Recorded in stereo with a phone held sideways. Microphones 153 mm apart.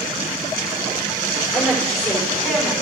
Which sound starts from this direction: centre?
A woman speaking, at 1.5 s.